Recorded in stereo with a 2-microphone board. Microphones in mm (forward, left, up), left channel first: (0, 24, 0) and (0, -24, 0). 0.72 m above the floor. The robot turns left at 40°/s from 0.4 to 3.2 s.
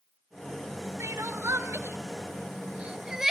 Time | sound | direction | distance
1.0 | crying | 70° right (ahead or behind) | 1.8 m